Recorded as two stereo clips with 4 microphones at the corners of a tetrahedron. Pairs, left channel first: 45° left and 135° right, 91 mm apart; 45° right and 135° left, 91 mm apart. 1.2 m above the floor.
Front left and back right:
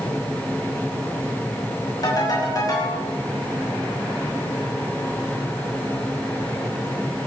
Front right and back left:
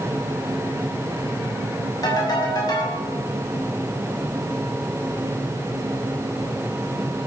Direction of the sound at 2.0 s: Straight ahead.